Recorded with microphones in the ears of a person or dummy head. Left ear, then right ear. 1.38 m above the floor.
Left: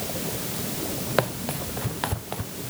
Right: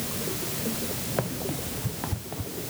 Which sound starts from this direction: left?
Running footsteps, at 1.2 s.